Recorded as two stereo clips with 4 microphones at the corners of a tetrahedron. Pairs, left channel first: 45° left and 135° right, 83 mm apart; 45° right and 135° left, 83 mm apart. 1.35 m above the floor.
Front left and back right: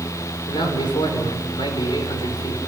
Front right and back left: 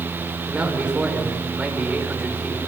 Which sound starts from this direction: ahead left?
A man speaking, at 0.5 s.